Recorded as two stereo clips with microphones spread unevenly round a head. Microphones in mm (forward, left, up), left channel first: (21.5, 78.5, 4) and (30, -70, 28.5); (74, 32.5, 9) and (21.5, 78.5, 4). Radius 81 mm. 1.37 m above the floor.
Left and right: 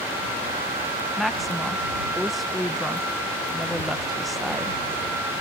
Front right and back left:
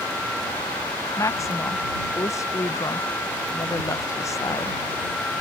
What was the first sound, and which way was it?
A woman speaking, 5° left.